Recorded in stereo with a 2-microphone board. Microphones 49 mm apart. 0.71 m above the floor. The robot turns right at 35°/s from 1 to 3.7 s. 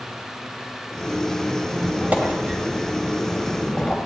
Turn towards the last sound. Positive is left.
turn(degrees=20)